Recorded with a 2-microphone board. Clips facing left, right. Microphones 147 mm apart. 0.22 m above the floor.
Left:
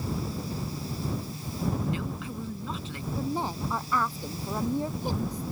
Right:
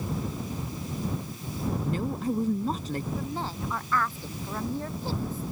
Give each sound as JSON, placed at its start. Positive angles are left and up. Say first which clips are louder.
{"t": 1.8, "sound": "a woman speaking", "louder": "right 4 dB", "side_deg": -45}
{"t": 3.2, "sound": "a woman speaking", "louder": "left 3 dB", "side_deg": 15}